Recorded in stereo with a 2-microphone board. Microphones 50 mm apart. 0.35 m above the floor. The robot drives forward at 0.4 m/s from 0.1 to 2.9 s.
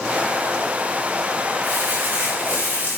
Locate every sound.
1.6 s crumpling: 35° right (ahead or behind), 3.5 m; by 3.0 s 30° right (ahead or behind), 4 m